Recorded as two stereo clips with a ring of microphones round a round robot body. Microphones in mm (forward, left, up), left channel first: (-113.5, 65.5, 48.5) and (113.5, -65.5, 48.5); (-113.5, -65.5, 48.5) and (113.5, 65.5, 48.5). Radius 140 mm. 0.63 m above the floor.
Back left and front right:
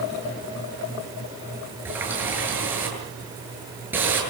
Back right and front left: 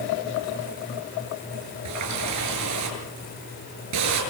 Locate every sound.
1.9 s a running tap: 55° left, 8.5 m